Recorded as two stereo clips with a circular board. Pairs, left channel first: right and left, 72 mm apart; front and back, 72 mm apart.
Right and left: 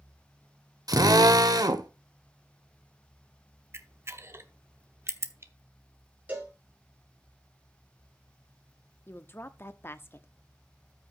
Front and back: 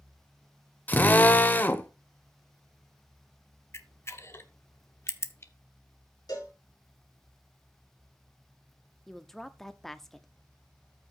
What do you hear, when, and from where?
0.9 s a drill: 65° left, 0.8 m
3.7 s a camera shutter: 45° left, 0.8 m
6.3 s a cowbell: 25° left, 3.5 m
9.1 s a woman speaking: 80° right, 0.7 m